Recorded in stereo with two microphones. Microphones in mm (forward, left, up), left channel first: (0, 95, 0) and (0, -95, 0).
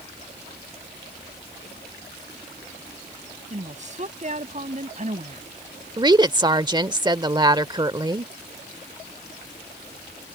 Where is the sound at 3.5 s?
40° right (ahead or behind).